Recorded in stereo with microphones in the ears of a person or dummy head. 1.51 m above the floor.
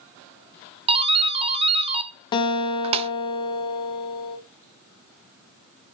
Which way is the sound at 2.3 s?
25° left (ahead or behind).